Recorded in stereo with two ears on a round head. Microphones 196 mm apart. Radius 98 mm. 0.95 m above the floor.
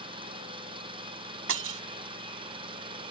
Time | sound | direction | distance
0.0 | an engine running | 25° right (ahead or behind) | ?
1.5 | breaking glass | 60° right (ahead or behind) | ?